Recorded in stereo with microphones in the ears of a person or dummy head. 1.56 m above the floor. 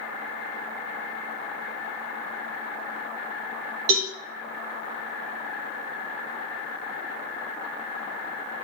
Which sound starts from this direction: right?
A cowbell, at 3.9 s.